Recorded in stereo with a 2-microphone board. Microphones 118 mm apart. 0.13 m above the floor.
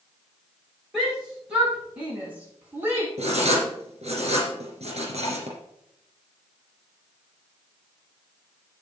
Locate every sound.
0.9 s a shout: 5° right (ahead or behind), 6 m; by 3.1 s 20° right (ahead or behind), 4.5 m
3.2 s writing: 70° right (ahead or behind), 3.5 m